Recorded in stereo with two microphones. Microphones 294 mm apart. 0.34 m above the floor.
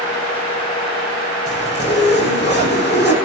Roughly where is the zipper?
Left.